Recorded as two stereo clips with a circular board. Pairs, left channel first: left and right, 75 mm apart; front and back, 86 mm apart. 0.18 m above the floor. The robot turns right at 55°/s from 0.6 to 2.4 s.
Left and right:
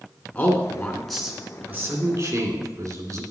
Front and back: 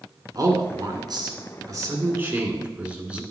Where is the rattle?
No rattle in this recording.